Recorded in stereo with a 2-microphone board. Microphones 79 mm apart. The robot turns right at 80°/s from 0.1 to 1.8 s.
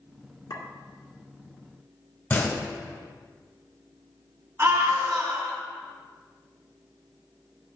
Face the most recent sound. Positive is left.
turn(degrees=-25)  # may be behind; listen again after turning